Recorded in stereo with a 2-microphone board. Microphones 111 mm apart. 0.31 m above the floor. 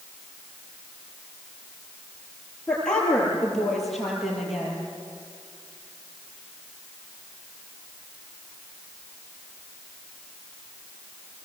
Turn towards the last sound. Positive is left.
turn(degrees=-5)  # may be behind; listen again after turning